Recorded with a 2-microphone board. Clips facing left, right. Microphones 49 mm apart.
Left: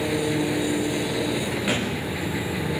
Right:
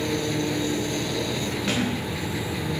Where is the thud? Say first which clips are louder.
Right 1 dB; 15° left (ahead or behind), 10 m.